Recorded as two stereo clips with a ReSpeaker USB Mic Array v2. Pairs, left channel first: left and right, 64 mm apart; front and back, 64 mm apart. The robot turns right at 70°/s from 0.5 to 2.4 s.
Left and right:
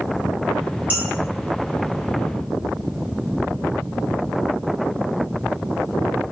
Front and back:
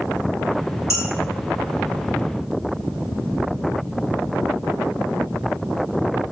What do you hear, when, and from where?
0.9 s dishes clattering: 30° right, 1.7 m; by 1.0 s 20° right, 1.7 m